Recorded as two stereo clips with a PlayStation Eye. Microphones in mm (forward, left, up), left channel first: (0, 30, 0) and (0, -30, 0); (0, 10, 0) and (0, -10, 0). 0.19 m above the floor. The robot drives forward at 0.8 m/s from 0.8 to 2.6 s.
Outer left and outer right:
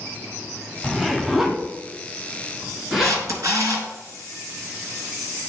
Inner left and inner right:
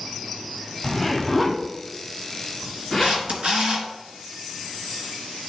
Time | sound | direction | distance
0.8 | a zipper | 10° right (ahead or behind) | 0.8 m
3.0 | a camera shutter | 60° right (ahead or behind) | 2.5 m